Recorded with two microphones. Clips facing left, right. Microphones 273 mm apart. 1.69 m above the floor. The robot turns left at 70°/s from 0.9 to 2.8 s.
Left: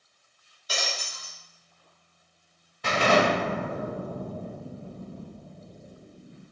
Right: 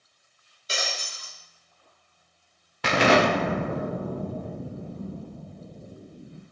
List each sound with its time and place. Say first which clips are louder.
0.7 s breaking glass: right 1 dB; 60° right, 1.3 m; by 1.4 s 90° right, 1.3 m
2.8 s an explosion: right 2 dB; 85° right, 0.5 m